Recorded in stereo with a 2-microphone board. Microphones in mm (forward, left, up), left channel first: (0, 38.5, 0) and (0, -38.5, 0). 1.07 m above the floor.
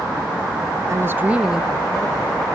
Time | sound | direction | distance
0.9 | a woman speaking | 40° right (ahead or behind) | 0.8 m